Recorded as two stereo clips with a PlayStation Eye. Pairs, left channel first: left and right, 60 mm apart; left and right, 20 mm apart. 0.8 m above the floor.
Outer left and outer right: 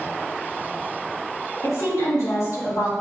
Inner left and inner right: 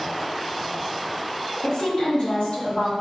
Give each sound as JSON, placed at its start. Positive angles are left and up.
{"t": 1.6, "sound": "a woman speaking", "side_deg": 50, "distance_m": 1.4}